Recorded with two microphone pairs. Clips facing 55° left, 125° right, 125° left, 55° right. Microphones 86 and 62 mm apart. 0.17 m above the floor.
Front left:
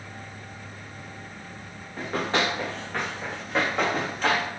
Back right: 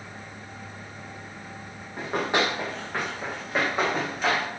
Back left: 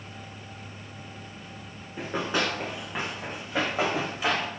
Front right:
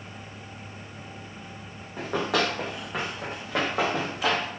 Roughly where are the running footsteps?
Ahead right.